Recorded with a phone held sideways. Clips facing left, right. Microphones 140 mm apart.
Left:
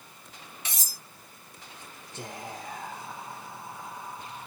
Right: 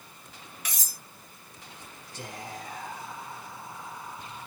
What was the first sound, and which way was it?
Cutlery clinking, 25° left (ahead or behind).